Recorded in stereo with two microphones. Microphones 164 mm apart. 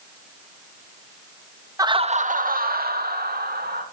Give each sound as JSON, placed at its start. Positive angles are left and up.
{"t": 1.8, "sound": "laughter", "side_deg": -20, "distance_m": 0.9}